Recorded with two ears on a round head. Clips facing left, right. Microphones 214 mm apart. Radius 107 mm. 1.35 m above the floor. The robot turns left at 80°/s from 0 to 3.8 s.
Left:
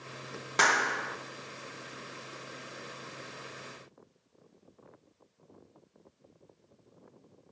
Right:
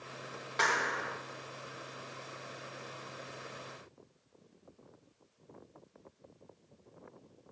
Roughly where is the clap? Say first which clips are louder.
Left 3 dB; left.